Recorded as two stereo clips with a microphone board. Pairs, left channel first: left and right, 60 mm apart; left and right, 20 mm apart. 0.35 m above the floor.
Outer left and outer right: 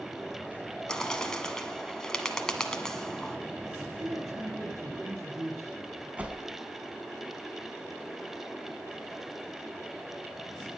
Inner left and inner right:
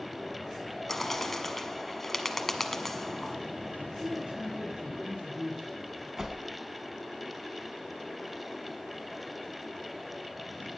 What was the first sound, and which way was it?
A bird, 10° left (ahead or behind).